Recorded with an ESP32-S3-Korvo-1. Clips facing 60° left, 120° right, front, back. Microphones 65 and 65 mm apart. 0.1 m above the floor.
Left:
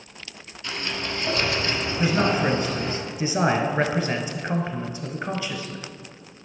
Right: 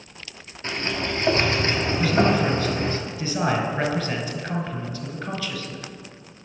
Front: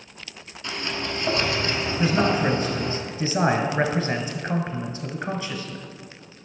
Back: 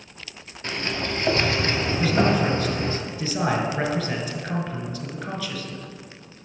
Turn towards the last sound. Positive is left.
turn(degrees=25)